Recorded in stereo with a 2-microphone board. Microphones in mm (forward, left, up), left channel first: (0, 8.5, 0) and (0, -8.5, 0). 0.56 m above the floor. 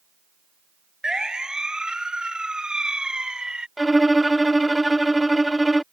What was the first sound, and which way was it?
A siren, 50° right (ahead or behind).